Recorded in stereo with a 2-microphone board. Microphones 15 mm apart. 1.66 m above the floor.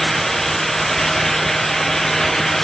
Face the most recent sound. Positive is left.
No sound to turn to.